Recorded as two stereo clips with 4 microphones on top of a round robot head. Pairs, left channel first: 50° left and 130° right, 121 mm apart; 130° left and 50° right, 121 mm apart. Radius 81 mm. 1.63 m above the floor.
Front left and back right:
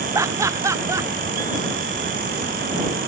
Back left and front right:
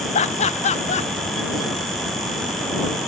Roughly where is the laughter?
Behind.